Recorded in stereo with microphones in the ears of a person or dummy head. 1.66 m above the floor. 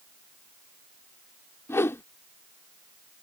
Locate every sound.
1.7 s a whoosh: 15° left (ahead or behind)